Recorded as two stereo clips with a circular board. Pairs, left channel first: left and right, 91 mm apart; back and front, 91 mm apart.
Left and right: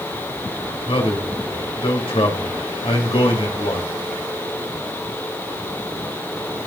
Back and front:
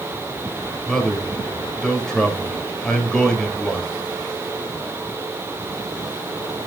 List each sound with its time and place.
0.9 s a man speaking: 100° left, 3.5 m